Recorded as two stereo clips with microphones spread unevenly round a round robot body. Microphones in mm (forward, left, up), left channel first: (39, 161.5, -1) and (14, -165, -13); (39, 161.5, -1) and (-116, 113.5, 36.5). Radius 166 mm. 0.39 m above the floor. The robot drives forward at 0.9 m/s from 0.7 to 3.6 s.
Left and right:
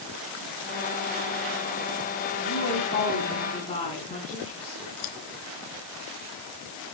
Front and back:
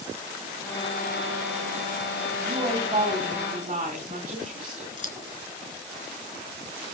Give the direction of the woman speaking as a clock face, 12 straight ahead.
7 o'clock.